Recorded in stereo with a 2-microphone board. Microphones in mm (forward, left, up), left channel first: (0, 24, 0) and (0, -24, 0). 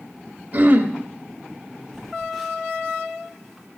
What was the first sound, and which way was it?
Throat clearing, 35° right (ahead or behind).